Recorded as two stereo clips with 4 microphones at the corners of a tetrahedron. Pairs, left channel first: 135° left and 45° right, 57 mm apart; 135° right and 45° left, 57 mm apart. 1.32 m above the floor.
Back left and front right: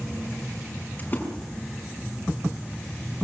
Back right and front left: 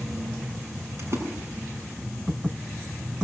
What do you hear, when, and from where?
1.0 s a splash: 80° left, 5 m